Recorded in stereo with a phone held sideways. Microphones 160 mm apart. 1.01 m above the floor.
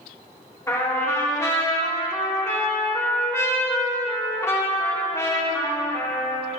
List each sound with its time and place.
0.7 s a trumpet: 20° left (ahead or behind), 3 m